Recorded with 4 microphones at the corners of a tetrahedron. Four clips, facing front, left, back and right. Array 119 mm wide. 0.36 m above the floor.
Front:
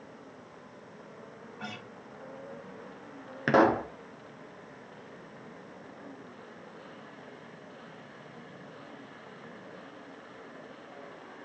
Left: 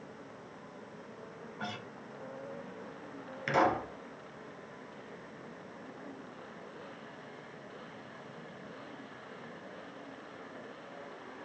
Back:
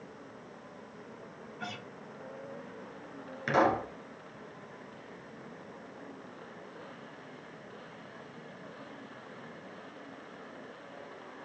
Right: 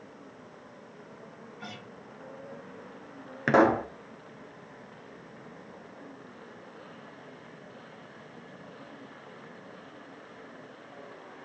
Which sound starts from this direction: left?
A guitar, at 1.6 s.